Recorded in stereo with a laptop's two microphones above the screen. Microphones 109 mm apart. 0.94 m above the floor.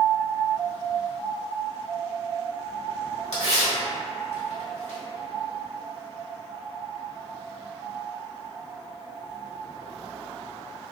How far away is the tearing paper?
About 1.2 m.